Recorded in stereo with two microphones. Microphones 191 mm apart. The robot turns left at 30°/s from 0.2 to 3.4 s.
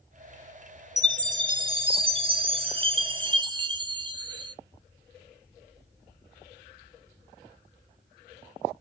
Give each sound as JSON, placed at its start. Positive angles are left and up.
{"t": 1.0, "sound": "a chime", "side_deg": -20, "distance_m": 0.6}